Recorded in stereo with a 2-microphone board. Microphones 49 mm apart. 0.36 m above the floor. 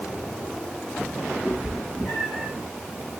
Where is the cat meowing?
20° left (ahead or behind), 4 m; by 2.5 s 5° left (ahead or behind), 3 m.